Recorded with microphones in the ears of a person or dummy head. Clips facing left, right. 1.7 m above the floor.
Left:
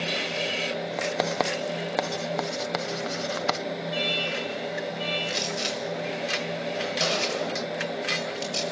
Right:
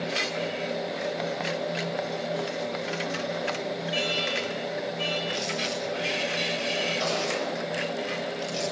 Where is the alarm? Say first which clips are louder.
Even; 30° right (ahead or behind), 7 m.